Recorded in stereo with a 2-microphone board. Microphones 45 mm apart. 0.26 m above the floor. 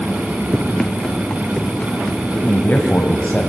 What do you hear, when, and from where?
0.5 s running footsteps: 5° right (ahead or behind), 1.7 m; by 2.2 s 35° left (ahead or behind), 3 m
2.3 s a man speaking: 40° left (ahead or behind), 1.5 m